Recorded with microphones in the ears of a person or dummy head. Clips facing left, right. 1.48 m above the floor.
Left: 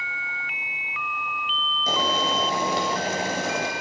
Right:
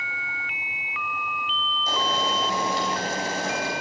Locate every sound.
1.9 s boiling: 60° left (ahead or behind), 2.5 m